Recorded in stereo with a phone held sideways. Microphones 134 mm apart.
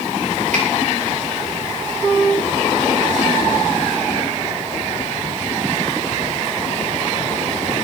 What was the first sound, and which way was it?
A finger snap, 60° right (ahead or behind).